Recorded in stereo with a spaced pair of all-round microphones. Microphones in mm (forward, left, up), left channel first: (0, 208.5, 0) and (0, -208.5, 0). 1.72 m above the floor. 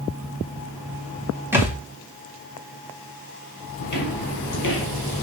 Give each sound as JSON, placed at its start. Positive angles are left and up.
{"t": 1.5, "sound": "a thud", "side_deg": -5, "distance_m": 1.9}
{"t": 3.8, "sound": "footsteps", "side_deg": 45, "distance_m": 2.5}